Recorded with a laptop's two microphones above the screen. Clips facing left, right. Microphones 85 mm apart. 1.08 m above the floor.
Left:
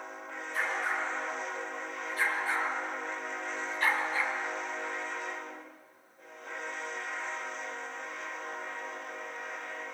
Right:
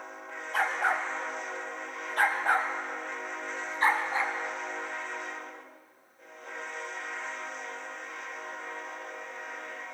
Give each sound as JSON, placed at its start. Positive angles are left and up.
{"t": 0.5, "sound": "a dog barking", "side_deg": -75, "distance_m": 3.0}